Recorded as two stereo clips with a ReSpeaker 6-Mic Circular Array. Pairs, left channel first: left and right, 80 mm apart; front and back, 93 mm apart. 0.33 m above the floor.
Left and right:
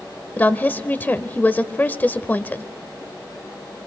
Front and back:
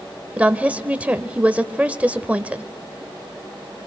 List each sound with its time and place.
0.4 s a woman speaking: 125° left, 0.9 m